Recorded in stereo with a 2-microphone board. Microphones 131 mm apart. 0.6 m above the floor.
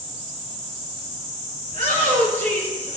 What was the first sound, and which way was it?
A shout, 80° right.